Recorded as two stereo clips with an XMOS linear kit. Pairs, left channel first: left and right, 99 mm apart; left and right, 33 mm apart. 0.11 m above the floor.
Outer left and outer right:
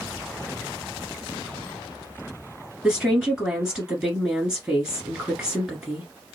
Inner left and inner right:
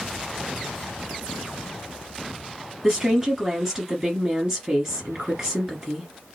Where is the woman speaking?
5° right (ahead or behind), 1.4 m.